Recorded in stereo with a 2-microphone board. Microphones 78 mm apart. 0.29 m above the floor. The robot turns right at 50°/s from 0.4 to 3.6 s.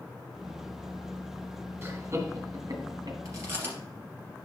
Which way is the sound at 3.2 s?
45° right (ahead or behind).